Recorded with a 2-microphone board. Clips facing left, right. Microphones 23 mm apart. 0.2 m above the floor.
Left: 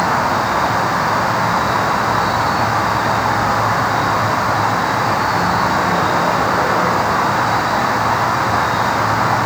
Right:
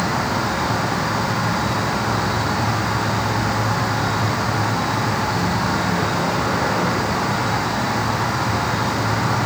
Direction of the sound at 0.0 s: 55° left (ahead or behind).